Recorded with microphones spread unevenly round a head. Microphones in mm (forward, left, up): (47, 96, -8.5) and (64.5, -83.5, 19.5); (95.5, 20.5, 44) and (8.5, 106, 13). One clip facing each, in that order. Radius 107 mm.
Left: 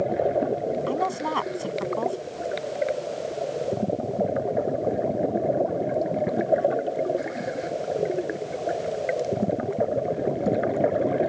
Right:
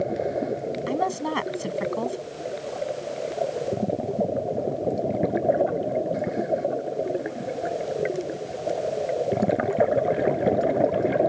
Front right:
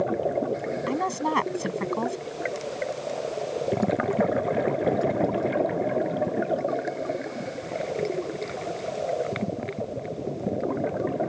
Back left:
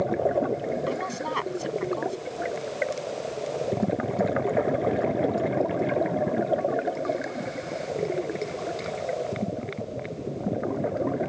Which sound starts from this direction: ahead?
A woman speaking, at 0.9 s.